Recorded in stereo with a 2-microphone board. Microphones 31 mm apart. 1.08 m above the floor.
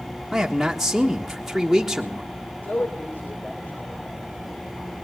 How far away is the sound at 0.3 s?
About 1.6 m.